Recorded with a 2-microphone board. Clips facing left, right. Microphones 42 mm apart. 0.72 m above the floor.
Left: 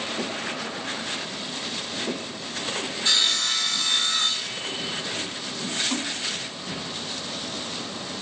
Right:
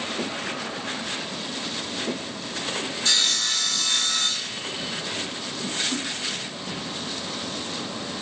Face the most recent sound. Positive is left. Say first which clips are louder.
# left 1 dB
turn(degrees=75)  # may be behind; listen again after turning